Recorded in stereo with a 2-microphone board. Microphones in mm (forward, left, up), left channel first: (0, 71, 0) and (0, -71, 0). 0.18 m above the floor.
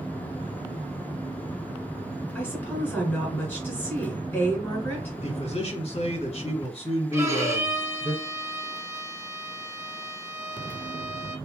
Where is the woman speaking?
15° left (ahead or behind), 1.9 m.